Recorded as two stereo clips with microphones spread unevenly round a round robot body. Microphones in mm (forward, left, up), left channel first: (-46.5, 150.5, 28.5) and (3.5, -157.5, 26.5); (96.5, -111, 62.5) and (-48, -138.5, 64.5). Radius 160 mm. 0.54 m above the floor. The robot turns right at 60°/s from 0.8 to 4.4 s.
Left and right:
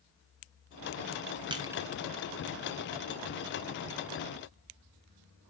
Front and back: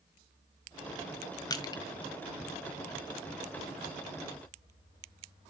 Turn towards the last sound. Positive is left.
turn(degrees=150)